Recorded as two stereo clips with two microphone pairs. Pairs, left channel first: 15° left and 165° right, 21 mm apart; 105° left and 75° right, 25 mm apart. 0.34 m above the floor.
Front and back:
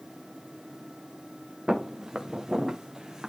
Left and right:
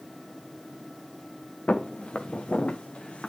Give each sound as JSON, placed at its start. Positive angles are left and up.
{"t": 1.7, "sound": "footsteps", "azimuth_deg": 130, "distance_m": 1.7}